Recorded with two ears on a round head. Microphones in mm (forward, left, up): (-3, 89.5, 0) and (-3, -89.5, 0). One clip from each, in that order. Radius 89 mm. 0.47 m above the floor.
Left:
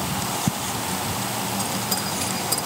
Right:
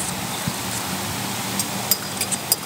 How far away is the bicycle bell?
About 8.5 m.